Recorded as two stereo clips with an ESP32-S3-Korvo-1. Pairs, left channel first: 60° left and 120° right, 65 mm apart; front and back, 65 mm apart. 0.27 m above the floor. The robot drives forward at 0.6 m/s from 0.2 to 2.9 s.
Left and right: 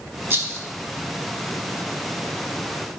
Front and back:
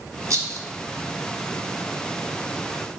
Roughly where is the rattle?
Behind.